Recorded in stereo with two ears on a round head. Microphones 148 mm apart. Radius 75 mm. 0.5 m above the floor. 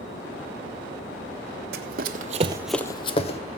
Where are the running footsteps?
60° right (ahead or behind), 1.2 m; by 3.4 s 45° left (ahead or behind), 1.1 m.